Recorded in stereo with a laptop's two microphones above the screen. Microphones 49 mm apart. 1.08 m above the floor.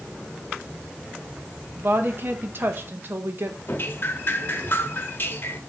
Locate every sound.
1.8 s a woman speaking: 45° right (ahead or behind), 0.9 m
3.7 s dripping: 45° left (ahead or behind), 1.0 m